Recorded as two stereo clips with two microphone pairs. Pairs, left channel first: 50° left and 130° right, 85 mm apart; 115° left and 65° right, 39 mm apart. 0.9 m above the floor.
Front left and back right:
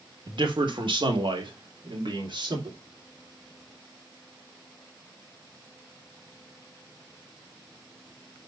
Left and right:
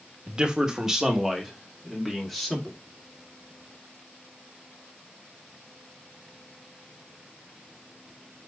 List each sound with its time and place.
0.3 s a man speaking: 125° right, 1.6 m; by 2.8 s 160° right, 3 m